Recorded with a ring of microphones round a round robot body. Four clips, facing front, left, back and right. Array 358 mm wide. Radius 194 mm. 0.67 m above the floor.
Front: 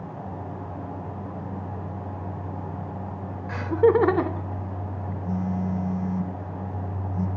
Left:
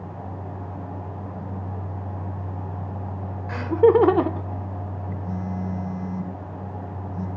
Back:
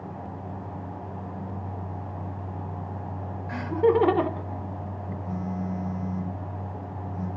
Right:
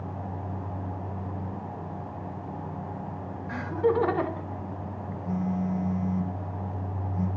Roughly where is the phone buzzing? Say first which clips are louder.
Right 2 dB, front 4 dB; ahead left.